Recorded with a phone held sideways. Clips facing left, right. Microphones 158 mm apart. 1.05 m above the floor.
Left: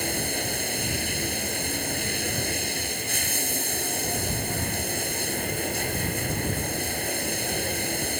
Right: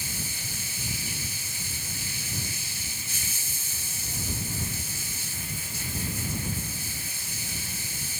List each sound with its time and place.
0.0 s running water: 60° left (ahead or behind)